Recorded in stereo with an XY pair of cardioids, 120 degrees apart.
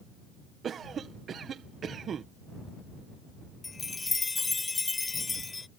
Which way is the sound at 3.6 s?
15° left.